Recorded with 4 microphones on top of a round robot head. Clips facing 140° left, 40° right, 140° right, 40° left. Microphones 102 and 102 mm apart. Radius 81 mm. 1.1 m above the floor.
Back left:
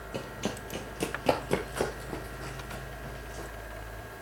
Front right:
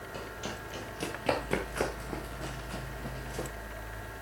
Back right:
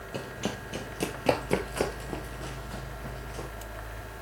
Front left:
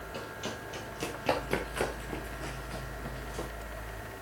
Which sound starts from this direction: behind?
Running footsteps, at 0.1 s.